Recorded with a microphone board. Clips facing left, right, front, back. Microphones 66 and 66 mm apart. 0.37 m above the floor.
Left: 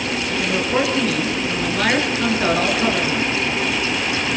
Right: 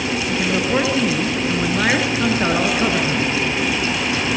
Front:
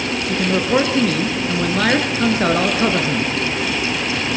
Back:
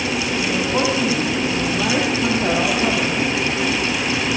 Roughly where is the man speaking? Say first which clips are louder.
Right 1 dB, front 6 dB; ahead.